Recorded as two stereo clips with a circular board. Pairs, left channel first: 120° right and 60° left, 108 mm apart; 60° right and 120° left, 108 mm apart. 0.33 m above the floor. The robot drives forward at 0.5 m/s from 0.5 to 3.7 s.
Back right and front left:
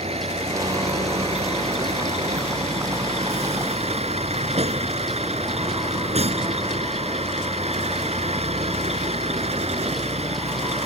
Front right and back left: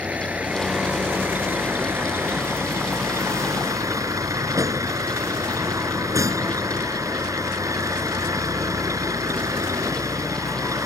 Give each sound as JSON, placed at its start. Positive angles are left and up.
{"t": 0.0, "sound": "a vehicle", "azimuth_deg": 40}